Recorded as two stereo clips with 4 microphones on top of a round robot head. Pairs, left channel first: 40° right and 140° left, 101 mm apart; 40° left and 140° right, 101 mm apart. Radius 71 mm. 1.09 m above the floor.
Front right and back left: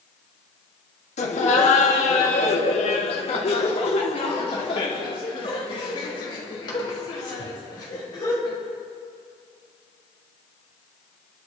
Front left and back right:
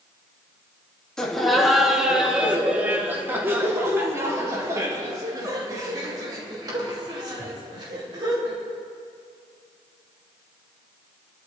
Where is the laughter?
45° right, 2 m; by 8.6 s 95° right, 5.5 m.